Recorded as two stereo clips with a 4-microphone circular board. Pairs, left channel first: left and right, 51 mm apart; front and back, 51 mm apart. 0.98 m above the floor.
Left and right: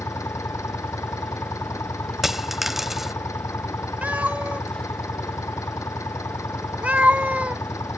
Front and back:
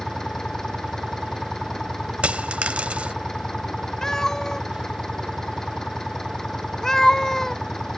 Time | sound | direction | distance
0.0 | an engine running | 80° left | ?
2.2 | a dropped coin | 165° right | ?
4.0 | a cat meowing | 70° right | ?